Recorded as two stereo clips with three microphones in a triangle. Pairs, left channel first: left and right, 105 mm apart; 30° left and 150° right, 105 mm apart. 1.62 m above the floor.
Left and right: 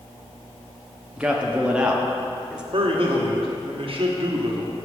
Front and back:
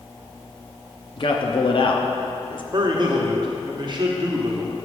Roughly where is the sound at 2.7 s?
Right.